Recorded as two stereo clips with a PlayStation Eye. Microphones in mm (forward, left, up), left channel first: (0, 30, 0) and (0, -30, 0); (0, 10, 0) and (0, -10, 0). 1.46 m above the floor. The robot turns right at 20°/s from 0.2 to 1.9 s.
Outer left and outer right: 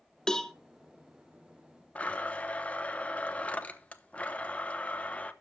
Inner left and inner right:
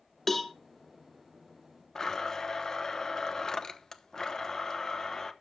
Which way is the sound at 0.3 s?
10° left (ahead or behind).